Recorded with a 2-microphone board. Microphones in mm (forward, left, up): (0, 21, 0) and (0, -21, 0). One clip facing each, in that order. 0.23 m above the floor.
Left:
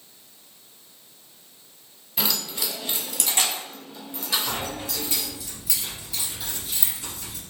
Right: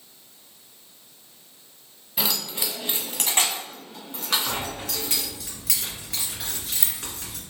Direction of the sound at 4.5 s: 65° right (ahead or behind).